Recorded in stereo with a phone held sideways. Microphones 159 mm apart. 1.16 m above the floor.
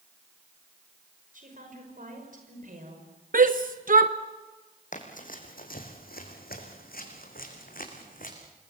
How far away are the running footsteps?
About 4 m.